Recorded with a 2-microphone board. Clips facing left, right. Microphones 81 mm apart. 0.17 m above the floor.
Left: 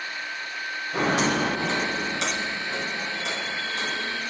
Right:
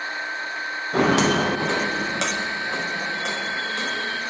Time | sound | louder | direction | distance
0.9 | footsteps | right 5 dB | 85° right | 2.5 m